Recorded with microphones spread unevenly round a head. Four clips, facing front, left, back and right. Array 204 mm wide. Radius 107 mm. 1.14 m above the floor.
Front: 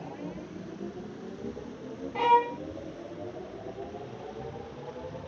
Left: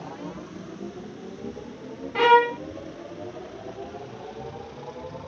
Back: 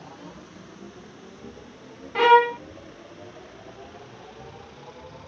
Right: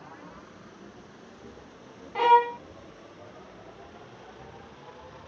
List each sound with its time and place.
0.0 s a machine running: 60° left
2.1 s a violin: 150° left